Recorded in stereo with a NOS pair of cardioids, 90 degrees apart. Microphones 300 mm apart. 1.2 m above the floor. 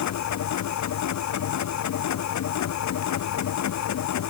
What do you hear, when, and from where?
0.0 s a machine running: 65° left